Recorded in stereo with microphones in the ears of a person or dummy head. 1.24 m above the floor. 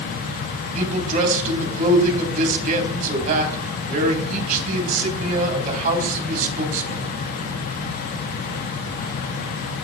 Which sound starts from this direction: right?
A man speaking, at 0.8 s.